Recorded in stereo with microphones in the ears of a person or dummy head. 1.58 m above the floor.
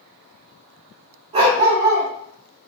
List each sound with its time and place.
1.3 s a dog barking: 35° right (ahead or behind), 2 m